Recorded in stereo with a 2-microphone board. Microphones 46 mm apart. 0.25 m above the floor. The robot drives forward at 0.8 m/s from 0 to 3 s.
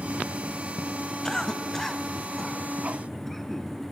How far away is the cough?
About 1.1 m.